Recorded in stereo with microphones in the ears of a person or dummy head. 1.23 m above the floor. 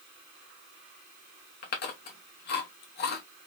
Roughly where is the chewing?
Left.